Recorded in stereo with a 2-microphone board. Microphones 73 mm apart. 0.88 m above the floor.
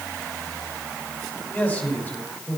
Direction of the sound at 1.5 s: 20° left (ahead or behind).